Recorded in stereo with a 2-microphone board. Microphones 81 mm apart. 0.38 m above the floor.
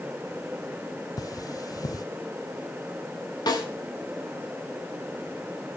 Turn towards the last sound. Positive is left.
turn(degrees=55)  # may be behind; listen again after turning